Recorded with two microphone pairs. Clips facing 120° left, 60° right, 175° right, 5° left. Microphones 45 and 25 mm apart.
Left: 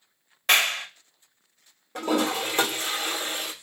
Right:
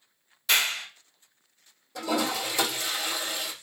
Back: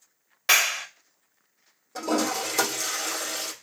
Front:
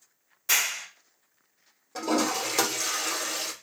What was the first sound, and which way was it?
A clap, 150° left.